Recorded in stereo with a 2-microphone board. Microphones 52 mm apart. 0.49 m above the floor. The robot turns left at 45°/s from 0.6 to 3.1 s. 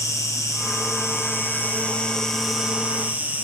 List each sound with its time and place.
0.0 s an insect: 85° left, 1.0 m; by 3.4 s 30° right, 1.0 m